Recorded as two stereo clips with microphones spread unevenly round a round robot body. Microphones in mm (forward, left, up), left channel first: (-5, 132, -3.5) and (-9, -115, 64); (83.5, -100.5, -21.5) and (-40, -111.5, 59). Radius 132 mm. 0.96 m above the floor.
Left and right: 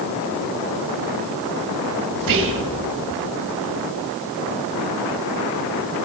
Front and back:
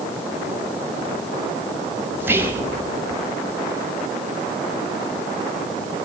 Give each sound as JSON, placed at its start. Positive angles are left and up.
{"t": 2.2, "sound": "whispering", "azimuth_deg": -90, "distance_m": 1.6}